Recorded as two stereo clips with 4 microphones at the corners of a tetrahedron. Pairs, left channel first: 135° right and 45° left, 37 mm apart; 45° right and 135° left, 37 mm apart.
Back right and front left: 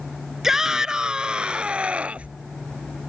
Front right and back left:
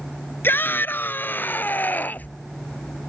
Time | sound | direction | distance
0.4 | a shout | 35° right | ?